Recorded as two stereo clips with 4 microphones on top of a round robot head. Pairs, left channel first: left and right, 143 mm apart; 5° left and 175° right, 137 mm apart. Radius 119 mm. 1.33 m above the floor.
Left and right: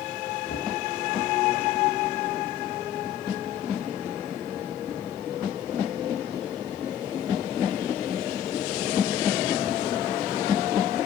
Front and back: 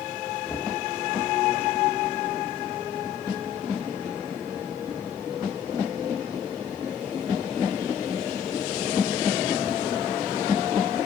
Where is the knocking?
75° left, 1.6 m.